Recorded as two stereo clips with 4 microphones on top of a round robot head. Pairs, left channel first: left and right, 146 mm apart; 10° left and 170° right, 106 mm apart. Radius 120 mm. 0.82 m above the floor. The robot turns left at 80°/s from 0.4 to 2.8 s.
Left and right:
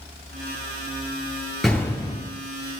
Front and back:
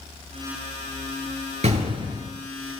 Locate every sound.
1.6 s an explosion: straight behind, 7.5 m; by 2.3 s 130° left, 7.5 m